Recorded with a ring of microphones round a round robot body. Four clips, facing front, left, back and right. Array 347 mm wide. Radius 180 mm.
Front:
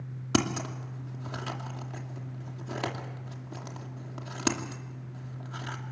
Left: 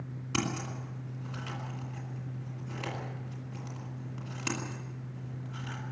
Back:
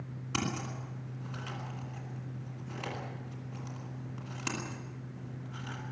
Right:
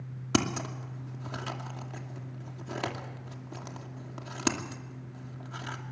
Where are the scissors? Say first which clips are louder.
Right 5 dB, front 7 dB; 45° right, 2.5 m.